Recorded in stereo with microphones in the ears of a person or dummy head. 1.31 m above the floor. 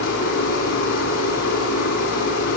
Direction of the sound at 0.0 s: 65° left (ahead or behind).